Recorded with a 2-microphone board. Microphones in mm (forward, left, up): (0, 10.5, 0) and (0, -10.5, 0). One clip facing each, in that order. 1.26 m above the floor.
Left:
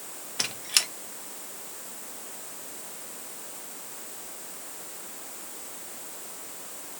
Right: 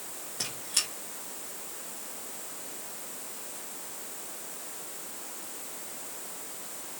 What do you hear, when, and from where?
0.4 s a squeak: 65° left (ahead or behind), 0.8 m